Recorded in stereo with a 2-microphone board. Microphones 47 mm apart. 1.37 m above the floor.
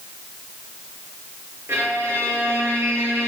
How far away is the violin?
About 3.5 m.